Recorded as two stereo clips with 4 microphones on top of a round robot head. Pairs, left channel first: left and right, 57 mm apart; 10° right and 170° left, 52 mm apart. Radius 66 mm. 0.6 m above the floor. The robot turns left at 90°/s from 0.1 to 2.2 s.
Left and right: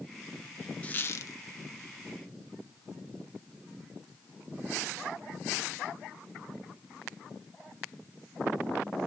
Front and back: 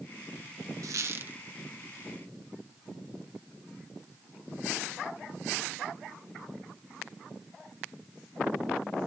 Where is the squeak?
160° left, 1.0 m; by 1.4 s 110° left, 1.0 m.